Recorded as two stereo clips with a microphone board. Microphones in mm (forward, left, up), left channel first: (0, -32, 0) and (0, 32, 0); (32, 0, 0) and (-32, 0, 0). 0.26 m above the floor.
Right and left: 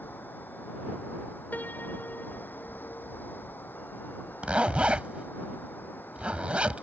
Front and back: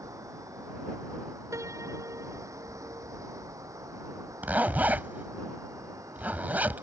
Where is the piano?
150° right.